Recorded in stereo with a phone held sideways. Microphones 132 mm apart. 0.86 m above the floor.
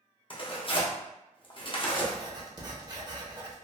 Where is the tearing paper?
40° left (ahead or behind), 0.7 m.